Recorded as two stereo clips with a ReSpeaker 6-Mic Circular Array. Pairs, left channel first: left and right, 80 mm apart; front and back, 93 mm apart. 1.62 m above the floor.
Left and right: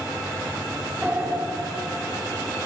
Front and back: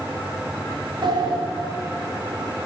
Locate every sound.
1.0 s a sliding door: 160° right, 3 m